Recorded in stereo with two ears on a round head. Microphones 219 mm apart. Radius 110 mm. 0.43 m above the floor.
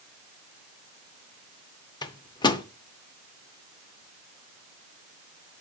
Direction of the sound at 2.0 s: 20° left (ahead or behind).